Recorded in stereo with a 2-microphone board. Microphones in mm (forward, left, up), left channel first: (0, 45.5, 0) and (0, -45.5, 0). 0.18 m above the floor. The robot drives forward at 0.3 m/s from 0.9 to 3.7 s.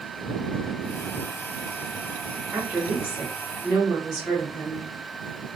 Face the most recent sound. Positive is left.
turn(degrees=-10)  # may be behind; listen again after turning